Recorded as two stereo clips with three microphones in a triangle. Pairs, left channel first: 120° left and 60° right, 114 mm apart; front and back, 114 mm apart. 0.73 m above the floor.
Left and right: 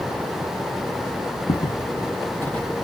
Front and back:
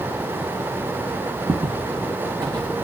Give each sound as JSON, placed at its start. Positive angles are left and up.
{"t": 1.5, "sound": "footsteps", "azimuth_deg": 105, "distance_m": 0.9}